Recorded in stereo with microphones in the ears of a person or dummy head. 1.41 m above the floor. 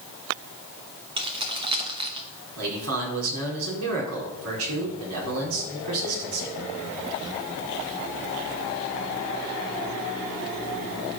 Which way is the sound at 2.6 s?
80° right.